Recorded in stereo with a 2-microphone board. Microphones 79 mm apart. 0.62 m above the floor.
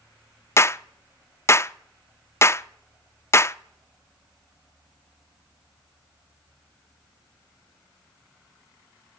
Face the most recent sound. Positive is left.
turn(degrees=35)  # may be behind; listen again after turning